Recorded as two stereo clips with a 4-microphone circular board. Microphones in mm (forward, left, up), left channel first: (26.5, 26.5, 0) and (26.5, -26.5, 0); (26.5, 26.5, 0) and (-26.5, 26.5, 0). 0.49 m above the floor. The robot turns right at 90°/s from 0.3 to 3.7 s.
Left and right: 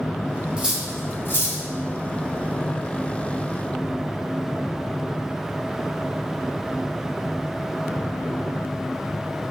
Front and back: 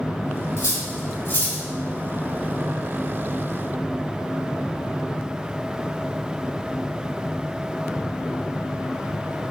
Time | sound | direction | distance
0.6 | cutlery clinking | 20° right | 1.1 m